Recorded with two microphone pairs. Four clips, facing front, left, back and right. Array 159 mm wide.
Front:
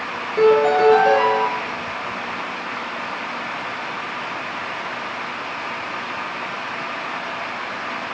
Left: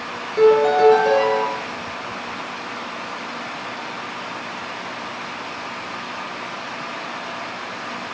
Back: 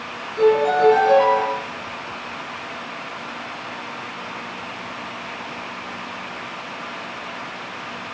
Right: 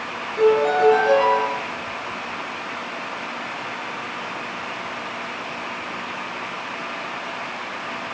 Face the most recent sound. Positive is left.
turn(degrees=55)